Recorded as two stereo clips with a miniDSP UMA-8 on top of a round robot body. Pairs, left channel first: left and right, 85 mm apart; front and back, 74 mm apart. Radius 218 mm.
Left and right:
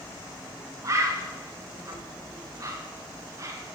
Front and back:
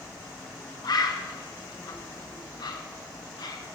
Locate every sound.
0.8 s a bird: 35° right, 0.5 m